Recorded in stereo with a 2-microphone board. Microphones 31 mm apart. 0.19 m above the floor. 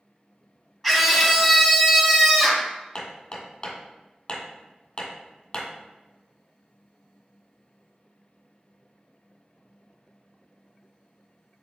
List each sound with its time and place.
0.8 s a scream: 10° left (ahead or behind), 1.0 m; by 2.7 s 5° left (ahead or behind), 1.1 m
3.0 s hammering: 40° left (ahead or behind), 1.4 m